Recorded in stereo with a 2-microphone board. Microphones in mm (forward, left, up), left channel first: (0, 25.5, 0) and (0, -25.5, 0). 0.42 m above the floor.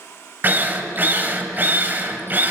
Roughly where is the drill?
Right.